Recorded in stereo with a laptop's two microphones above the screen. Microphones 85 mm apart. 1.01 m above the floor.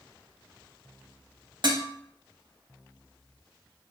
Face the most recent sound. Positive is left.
turn(degrees=-55)  # may be behind; listen again after turning